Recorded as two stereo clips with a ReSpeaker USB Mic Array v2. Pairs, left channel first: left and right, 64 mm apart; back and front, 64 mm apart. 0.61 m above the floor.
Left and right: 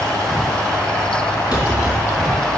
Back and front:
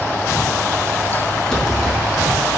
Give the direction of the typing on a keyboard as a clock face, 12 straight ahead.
9 o'clock.